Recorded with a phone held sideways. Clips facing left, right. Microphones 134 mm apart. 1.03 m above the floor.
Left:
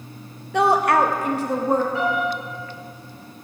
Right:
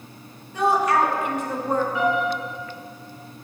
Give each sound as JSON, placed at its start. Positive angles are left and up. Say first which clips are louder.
{"t": 0.5, "sound": "a woman speaking", "louder": "left 2 dB", "side_deg": 75, "distance_m": 1.0}
{"t": 1.9, "sound": "a piano", "louder": "right 1 dB", "side_deg": 35, "distance_m": 4.0}